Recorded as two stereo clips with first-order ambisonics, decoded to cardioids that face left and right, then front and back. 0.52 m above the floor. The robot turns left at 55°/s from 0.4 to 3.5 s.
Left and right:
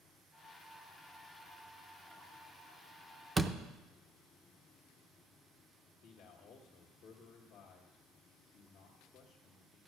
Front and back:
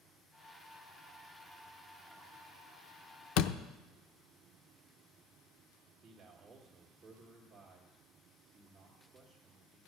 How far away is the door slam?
About 0.5 m.